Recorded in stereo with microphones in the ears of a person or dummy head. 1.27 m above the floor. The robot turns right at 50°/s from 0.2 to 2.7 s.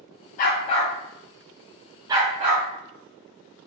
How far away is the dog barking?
About 1.0 m.